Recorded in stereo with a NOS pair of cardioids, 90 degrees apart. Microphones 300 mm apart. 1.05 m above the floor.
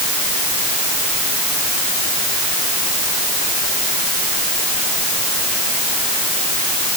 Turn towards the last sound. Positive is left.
No sound to turn to.